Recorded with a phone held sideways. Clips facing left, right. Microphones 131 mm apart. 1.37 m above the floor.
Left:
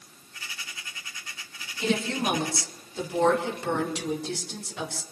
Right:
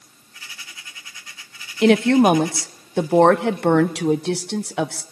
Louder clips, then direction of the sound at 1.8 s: Right 13 dB; 70° right (ahead or behind).